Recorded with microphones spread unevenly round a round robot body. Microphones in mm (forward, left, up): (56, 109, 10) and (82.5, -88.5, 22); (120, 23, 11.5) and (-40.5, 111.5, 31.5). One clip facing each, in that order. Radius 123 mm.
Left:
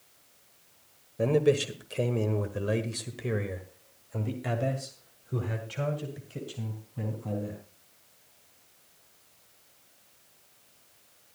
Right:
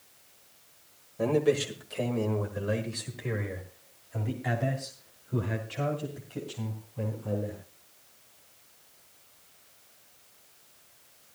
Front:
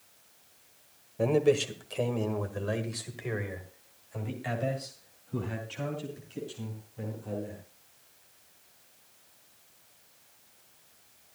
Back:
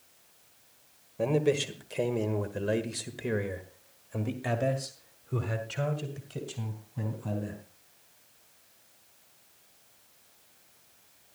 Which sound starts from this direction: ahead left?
A man speaking, at 1.2 s.